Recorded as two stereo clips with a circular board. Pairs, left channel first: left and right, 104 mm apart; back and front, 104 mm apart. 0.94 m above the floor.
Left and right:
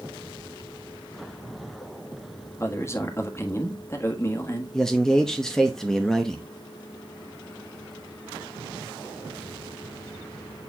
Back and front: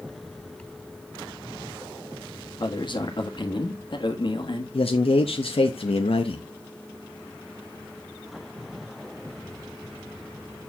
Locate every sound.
2.6 s a man speaking: 150° left, 1.5 m
4.7 s a man speaking: 175° left, 0.8 m